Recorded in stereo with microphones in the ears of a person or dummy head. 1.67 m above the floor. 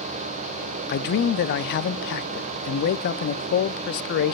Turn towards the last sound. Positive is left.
turn(degrees=55)  # may be behind; listen again after turning